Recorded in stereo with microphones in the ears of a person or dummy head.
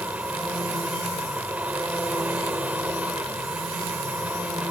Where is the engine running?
5° right (ahead or behind).